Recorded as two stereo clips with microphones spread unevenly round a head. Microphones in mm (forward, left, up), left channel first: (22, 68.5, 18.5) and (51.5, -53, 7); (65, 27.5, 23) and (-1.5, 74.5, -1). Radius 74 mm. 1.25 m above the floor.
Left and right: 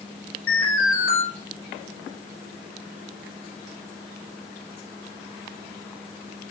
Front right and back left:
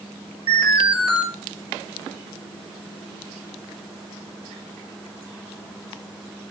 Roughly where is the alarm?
Behind left.